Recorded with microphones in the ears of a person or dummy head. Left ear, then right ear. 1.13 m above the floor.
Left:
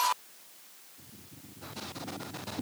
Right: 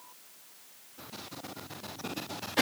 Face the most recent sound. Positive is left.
No sound to turn to.